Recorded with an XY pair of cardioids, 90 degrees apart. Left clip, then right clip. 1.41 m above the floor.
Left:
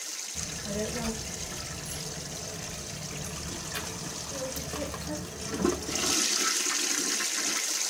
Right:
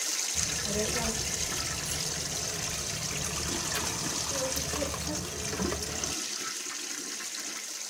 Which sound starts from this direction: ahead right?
A child speaking, at 0.3 s.